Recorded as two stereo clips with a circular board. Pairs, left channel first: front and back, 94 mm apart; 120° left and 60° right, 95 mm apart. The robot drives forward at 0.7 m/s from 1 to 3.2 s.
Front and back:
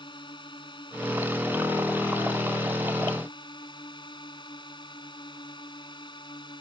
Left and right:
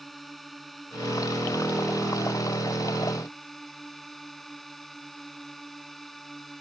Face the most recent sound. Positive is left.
turn(degrees=30)